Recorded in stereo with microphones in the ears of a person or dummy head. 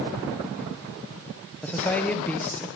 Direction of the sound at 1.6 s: 10° left (ahead or behind).